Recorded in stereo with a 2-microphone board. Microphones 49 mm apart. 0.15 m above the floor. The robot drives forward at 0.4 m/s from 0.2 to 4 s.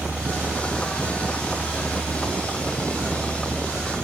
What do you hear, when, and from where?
0.0 s a helicopter: 55° right (ahead or behind); by 4.1 s 50° right (ahead or behind)